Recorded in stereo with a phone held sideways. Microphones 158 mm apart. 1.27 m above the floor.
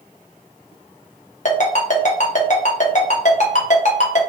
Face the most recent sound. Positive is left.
turn(degrees=50)  # may be behind; listen again after turning